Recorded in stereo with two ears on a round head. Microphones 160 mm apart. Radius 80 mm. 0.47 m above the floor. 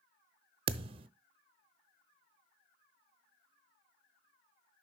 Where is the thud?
30° right (ahead or behind), 0.5 m.